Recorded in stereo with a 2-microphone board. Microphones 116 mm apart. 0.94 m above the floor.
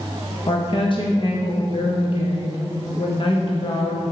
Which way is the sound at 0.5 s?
45° left (ahead or behind).